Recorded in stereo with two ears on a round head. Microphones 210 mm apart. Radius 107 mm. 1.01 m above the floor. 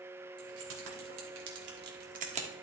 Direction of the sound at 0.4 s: 70° right (ahead or behind).